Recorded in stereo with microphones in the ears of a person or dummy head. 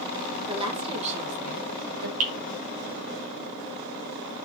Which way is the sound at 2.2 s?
45° right (ahead or behind).